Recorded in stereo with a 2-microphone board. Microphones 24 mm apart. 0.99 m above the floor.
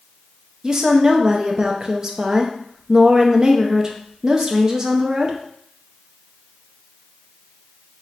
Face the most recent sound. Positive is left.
turn(degrees=-30)  # may be behind; listen again after turning